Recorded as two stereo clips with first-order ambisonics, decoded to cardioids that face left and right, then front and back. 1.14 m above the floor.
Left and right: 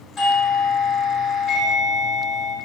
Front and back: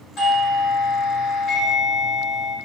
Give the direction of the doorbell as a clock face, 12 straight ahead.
11 o'clock.